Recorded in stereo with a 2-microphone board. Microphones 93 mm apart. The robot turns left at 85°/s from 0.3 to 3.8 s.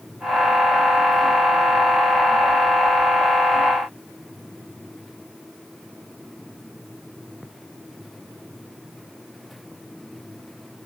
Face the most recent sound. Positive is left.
No sound to turn to.